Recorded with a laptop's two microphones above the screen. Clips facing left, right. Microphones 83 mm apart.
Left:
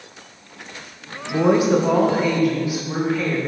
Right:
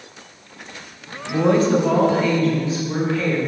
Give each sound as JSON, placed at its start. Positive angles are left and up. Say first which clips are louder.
{"t": 1.3, "sound": "a woman speaking", "louder": "even", "side_deg": 10, "distance_m": 0.6}